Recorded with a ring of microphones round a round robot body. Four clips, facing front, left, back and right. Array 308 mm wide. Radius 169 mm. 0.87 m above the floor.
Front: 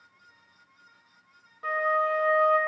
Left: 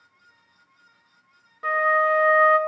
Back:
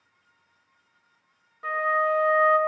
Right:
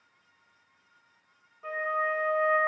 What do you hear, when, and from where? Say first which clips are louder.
1.6 s a flute: left 10 dB, back 2 dB; 90° left, 0.6 m